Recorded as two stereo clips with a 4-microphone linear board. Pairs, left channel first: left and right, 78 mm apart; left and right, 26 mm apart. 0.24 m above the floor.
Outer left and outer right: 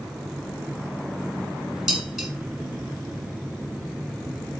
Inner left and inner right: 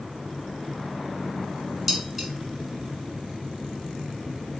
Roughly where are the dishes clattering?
Centre.